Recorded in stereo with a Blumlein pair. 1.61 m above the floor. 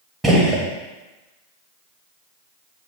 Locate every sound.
0.2 s a gunshot: 5° right, 0.7 m